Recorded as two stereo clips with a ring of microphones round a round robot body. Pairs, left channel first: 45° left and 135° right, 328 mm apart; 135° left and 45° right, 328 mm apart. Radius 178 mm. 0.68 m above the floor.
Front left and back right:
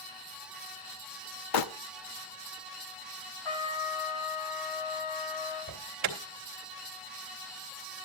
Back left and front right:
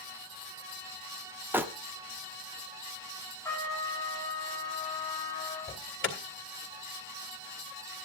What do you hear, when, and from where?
1.5 s crumpling: 40° left, 1.0 m
3.5 s a trumpet: 50° left, 4 m
5.7 s an alarm: 170° right, 2.5 m